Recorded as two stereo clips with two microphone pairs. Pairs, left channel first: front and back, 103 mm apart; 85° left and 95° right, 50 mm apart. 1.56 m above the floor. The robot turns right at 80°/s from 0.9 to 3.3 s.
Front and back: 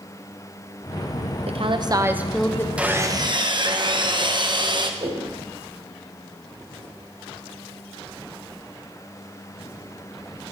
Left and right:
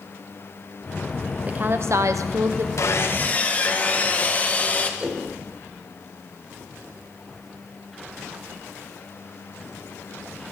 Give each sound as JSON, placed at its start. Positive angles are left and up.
{"t": 1.5, "sound": "a woman speaking", "azimuth_deg": -160, "distance_m": 0.9}
{"t": 2.8, "sound": "sawing", "azimuth_deg": 100, "distance_m": 1.0}
{"t": 5.0, "sound": "a whoosh", "azimuth_deg": -170, "distance_m": 3.0}